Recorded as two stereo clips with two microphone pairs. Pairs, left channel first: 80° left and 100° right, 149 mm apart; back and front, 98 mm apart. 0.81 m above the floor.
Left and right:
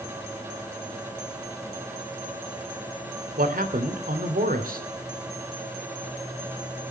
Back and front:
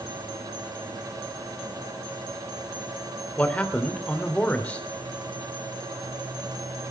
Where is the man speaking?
100° right, 3 m.